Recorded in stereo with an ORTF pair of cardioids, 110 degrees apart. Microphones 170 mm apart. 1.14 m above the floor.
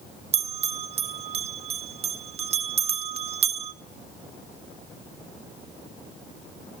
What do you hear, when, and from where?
0.3 s a bell: 40° right, 0.6 m